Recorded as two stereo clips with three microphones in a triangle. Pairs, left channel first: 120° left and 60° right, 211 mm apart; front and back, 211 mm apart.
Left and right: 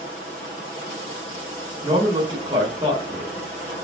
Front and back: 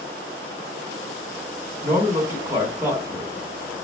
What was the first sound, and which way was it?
A man speaking, 110° right.